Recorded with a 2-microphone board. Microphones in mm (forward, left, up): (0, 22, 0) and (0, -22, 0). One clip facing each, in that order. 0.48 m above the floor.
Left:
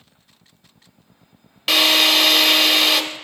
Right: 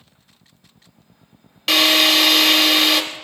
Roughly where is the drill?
Centre.